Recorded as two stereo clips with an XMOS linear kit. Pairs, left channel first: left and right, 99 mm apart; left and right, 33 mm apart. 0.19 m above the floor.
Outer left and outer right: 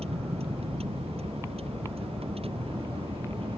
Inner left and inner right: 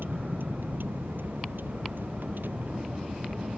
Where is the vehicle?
85° right; by 3.6 s 70° right (ahead or behind).